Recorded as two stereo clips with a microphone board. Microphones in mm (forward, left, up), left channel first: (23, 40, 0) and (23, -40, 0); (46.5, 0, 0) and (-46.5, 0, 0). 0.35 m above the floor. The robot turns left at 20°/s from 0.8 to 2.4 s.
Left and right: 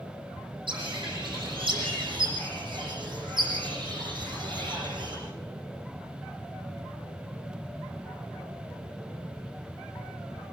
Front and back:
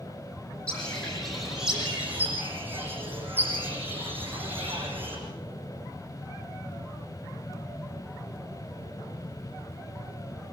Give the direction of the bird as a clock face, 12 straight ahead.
3 o'clock.